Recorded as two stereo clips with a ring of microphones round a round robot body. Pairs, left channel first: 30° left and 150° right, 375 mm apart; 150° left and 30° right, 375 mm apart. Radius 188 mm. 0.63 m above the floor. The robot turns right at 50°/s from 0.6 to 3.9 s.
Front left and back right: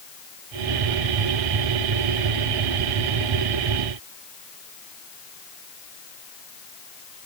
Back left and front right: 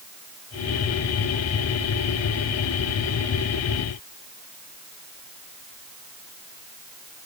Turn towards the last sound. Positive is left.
No sound to turn to.